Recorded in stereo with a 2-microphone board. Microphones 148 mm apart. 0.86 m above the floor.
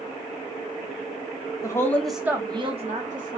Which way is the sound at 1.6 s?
25° left (ahead or behind).